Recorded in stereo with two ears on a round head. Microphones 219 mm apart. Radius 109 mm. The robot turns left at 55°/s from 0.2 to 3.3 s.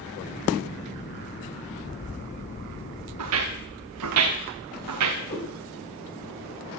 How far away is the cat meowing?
About 9 m.